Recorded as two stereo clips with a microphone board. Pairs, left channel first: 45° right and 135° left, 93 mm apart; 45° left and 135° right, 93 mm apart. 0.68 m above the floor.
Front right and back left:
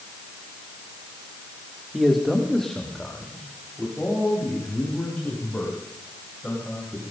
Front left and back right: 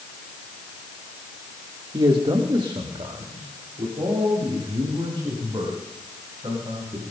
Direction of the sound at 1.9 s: 140° right.